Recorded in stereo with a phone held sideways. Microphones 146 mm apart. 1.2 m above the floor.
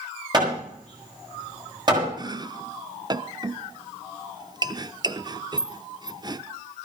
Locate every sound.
0.3 s hammering: 30° right (ahead or behind), 7.5 m
2.2 s chopping: 30° right (ahead or behind), 0.6 m